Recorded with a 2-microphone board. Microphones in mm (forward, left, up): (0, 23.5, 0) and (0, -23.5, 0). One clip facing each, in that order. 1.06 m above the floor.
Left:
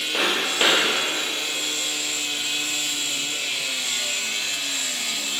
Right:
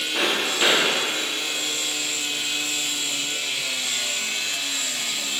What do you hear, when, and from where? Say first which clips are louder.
0.1 s footsteps: left 1 dB; 40° left (ahead or behind), 1.6 m